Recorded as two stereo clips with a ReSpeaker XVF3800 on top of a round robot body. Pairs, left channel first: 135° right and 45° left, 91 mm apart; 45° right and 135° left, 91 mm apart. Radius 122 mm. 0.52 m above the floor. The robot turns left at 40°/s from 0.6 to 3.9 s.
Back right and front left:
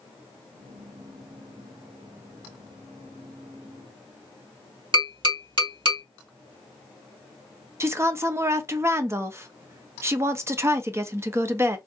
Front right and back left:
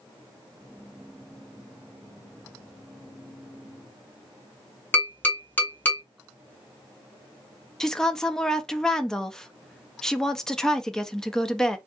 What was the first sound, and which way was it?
Tapping, 25° left.